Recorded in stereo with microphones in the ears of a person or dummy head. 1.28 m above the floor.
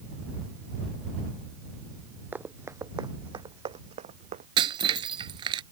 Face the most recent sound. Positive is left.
turn(degrees=-25)  # may be behind; listen again after turning